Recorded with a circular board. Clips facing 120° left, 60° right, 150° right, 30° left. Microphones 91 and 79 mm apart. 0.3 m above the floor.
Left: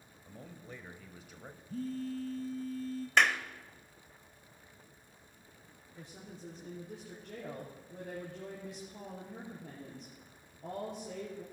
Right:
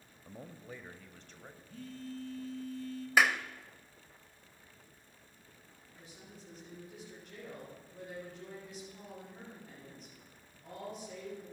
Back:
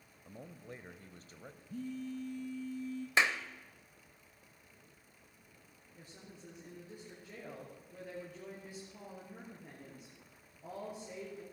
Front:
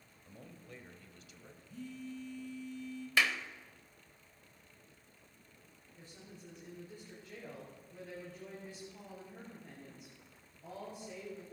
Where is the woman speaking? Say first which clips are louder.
Left 5 dB, even; 135° left, 4.5 m.